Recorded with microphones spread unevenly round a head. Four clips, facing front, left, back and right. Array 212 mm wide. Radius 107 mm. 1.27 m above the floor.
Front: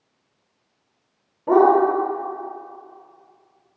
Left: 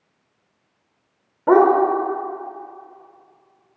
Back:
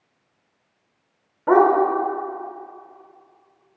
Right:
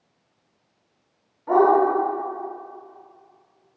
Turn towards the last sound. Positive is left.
turn(degrees=105)